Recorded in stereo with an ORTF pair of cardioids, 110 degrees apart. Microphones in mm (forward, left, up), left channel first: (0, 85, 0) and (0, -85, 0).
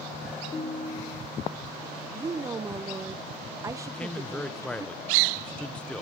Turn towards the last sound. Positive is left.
turn(degrees=5)